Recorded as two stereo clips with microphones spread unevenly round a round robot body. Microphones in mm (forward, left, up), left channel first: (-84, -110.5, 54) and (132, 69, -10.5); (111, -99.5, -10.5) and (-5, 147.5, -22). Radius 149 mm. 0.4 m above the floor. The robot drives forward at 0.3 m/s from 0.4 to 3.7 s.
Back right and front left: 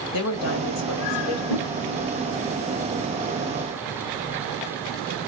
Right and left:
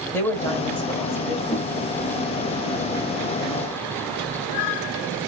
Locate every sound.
0.1 s a woman speaking: 145° right, 1.6 m; by 1.4 s 155° right, 1.8 m
1.5 s a whoosh: 140° right, 1.0 m; by 1.7 s 145° right, 1.1 m